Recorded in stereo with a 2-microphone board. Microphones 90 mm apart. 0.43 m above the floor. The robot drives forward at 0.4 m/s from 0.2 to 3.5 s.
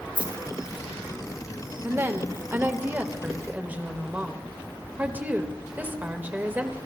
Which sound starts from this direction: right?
A woman speaking, at 1.8 s.